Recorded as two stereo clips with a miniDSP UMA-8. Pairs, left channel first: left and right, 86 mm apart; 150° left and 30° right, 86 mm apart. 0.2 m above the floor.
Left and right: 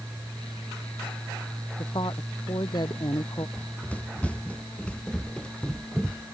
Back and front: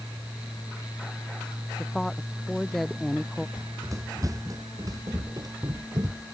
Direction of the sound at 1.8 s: 65° left.